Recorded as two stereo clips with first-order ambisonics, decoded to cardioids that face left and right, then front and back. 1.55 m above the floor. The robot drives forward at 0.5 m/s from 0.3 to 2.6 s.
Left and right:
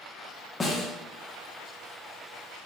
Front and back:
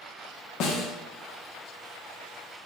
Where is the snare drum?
10° left, 0.8 m; by 0.9 s 15° left, 0.7 m.